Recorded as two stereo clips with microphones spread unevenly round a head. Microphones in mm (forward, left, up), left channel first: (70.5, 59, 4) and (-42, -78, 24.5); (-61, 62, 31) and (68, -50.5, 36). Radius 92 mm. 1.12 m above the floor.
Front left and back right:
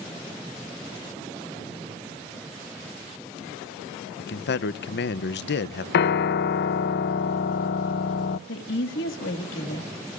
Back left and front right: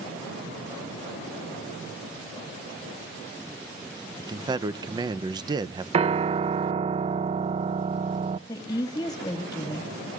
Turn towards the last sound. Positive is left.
turn(degrees=70)